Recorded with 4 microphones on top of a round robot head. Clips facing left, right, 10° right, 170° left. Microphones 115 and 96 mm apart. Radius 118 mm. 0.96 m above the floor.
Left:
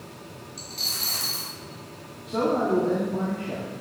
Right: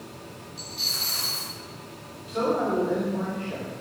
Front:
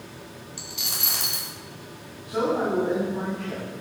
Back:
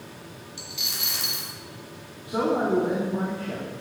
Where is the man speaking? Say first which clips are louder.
Left 2 dB, back 1 dB; 105° left, 3 m.